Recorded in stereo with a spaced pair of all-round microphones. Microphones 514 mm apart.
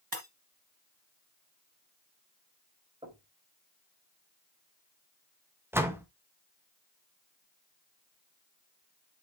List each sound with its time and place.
0.1 s breaking glass: 40° right (ahead or behind), 2.5 m
3.0 s knocking: 10° right (ahead or behind), 5 m
5.7 s a door slam: 5° right (ahead or behind), 1.4 m